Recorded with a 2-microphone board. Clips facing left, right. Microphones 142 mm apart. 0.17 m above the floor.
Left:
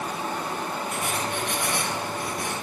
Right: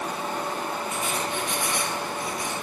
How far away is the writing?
About 10 m.